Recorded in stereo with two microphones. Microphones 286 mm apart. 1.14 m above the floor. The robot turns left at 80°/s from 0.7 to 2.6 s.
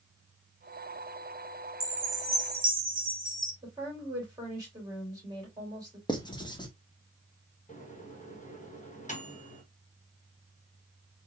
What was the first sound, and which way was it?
A chime, 85° right.